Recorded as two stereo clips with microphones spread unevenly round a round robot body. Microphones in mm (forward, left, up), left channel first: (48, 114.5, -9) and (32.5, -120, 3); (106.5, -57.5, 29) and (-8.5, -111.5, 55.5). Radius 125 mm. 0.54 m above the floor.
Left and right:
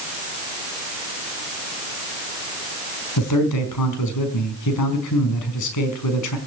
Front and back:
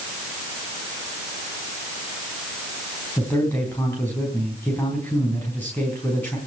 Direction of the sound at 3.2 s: 105° left.